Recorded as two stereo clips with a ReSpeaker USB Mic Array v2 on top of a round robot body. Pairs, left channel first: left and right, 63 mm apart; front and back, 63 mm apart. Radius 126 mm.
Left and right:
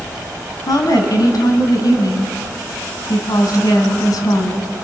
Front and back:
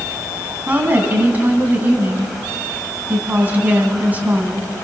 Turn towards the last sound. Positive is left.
turn(degrees=115)